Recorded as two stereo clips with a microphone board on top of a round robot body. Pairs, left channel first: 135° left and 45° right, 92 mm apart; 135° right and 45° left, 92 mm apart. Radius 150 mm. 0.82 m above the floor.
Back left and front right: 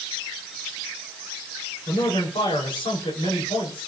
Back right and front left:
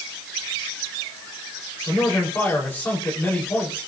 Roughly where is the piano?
I don't hear a piano.